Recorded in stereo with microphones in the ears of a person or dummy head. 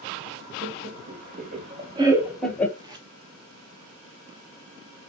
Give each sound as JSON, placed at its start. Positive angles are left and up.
{"t": 0.6, "sound": "laughter", "side_deg": -60, "distance_m": 2.5}
{"t": 2.8, "sound": "tape being pulled", "side_deg": -25, "distance_m": 1.2}